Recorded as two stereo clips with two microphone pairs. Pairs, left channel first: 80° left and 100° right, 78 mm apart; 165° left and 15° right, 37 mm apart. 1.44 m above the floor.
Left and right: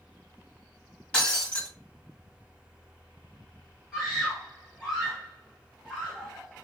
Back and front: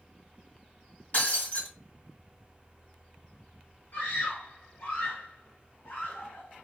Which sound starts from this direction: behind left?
Breaking glass, at 1.1 s.